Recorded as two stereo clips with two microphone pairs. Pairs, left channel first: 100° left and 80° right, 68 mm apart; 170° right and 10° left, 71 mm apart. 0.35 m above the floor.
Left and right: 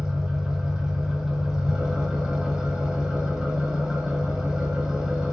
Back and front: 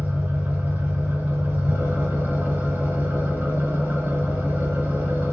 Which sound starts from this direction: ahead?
An engine running, at 0.0 s.